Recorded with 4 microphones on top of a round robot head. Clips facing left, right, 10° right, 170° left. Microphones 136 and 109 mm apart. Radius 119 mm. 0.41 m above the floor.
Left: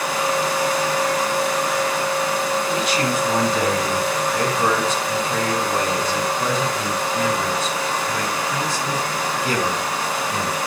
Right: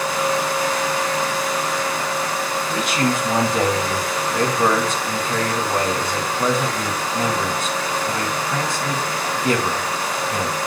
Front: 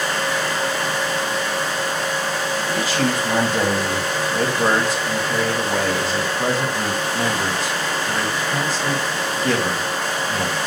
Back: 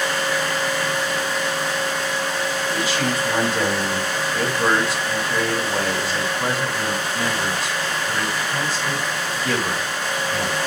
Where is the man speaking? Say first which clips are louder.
Even, front 4 dB; 55° right, 2.5 m.